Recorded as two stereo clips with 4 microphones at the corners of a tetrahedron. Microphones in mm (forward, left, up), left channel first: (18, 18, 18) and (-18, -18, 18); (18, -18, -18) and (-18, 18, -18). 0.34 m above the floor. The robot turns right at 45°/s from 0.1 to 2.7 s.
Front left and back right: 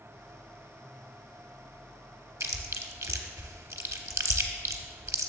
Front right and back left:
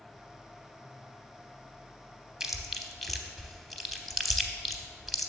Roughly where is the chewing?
Behind right.